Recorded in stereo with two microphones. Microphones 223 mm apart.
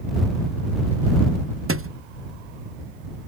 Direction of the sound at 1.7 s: 70° right (ahead or behind).